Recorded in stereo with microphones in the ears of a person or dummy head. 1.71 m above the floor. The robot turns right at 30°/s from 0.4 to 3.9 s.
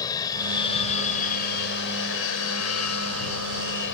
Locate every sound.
0.0 s an aircraft: 15° left; by 4.0 s 120° left